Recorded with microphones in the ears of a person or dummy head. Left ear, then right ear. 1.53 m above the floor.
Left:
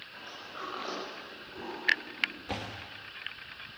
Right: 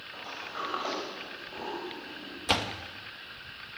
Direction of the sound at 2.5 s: 55° right (ahead or behind).